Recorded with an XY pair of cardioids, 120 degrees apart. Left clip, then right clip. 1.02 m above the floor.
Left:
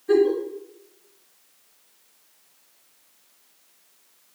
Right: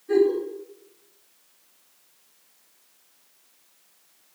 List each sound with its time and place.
0.1 s a giggle: 55° left, 1.3 m